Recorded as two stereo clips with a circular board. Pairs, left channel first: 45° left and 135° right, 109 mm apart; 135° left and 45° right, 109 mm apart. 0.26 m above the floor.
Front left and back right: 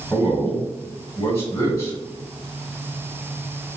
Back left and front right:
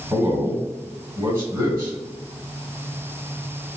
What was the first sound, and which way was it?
A man speaking, 5° right.